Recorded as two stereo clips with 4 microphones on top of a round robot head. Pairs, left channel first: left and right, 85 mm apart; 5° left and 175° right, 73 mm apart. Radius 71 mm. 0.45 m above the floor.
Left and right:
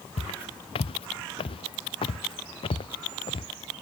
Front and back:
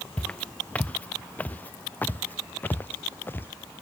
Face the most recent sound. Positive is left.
turn(degrees=70)